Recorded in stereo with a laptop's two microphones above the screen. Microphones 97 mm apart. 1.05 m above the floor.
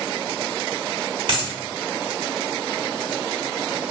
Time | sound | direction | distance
1.3 | a dropped coin | 60° right (ahead or behind) | 1.2 m